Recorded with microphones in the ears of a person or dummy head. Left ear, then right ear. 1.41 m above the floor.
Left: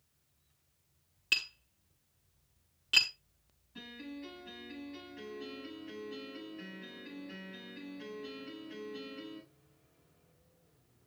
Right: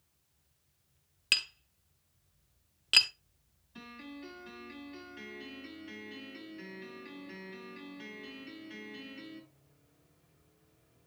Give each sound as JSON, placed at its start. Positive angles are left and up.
{"t": 1.3, "sound": "tapping", "side_deg": -10, "distance_m": 1.0}
{"t": 3.8, "sound": "a piano", "side_deg": -15, "distance_m": 7.0}